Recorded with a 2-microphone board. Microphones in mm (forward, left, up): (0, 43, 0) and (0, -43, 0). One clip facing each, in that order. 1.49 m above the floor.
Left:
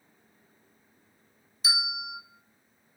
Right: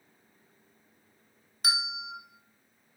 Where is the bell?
55° right (ahead or behind), 0.5 m.